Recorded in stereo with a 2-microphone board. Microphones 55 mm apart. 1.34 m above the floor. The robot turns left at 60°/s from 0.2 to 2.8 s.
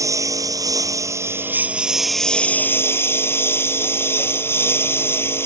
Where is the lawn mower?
65° right; by 5.5 s 135° left.